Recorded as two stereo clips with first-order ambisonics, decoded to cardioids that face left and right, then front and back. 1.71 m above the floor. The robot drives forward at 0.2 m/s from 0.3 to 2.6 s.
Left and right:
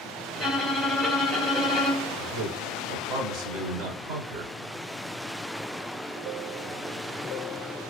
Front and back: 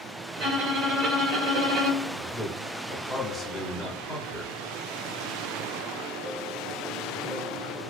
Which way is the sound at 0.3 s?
Straight behind.